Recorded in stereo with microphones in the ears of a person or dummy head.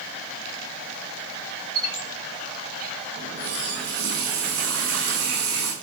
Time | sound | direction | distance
1.8 | a squeak | 60° right (ahead or behind) | 7 m
3.2 | a running tap | 70° right (ahead or behind) | 7.5 m